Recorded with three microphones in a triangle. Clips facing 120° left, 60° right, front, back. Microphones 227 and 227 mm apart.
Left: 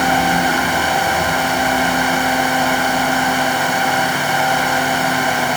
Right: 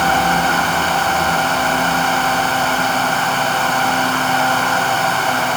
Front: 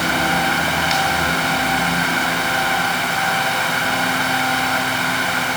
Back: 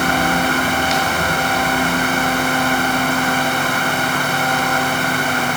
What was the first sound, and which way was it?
Only background noise.